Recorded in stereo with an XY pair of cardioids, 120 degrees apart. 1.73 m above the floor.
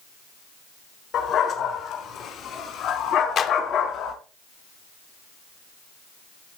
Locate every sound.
1.1 s a dog barking: 65° left, 6 m; by 4.1 s 80° left, 5 m
3.4 s a clap: 50° left, 2.5 m